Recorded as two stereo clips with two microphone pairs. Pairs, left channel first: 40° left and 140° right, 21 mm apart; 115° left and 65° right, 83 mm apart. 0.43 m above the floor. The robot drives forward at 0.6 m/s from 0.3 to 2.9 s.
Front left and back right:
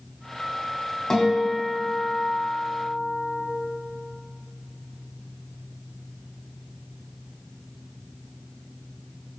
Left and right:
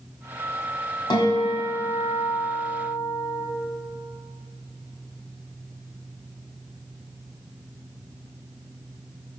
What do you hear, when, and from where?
1.1 s a guitar: 105° left, 2 m; by 3.4 s 130° left, 2.5 m